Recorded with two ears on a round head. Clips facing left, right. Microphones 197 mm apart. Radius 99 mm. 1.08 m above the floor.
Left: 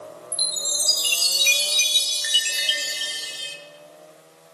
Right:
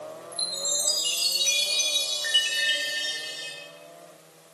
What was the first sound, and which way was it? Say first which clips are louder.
A chime: right 1 dB; 35° left (ahead or behind).